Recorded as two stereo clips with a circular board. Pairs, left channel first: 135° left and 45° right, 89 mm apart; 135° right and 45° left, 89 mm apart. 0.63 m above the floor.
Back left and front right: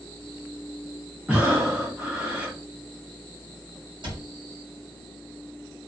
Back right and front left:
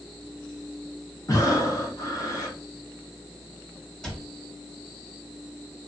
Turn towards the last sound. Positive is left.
turn(degrees=-50)